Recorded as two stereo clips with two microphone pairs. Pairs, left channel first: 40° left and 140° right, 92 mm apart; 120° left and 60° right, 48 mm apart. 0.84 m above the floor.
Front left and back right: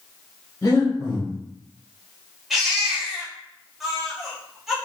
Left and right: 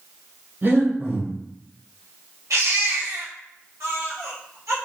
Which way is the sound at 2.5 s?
55° right.